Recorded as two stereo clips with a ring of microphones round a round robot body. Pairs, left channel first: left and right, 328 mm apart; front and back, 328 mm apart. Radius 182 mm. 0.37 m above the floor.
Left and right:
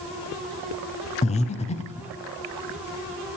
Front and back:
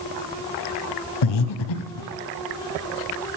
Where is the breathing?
20° left, 0.7 m.